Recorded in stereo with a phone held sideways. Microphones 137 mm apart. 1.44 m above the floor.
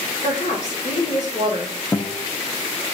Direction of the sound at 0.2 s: 80° left.